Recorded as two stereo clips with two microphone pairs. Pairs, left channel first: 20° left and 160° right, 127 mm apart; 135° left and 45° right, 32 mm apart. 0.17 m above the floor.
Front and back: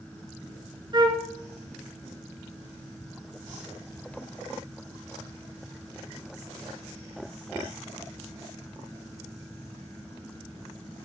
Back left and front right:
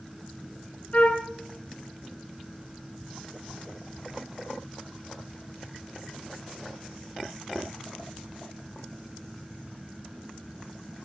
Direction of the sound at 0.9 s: 155° left.